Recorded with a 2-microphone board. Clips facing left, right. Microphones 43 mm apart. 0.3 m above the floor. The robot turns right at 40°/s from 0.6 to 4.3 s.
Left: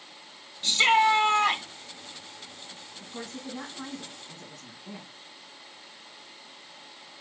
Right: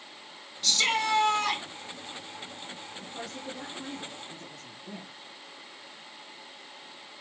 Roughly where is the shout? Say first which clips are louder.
Left 6 dB; ahead left.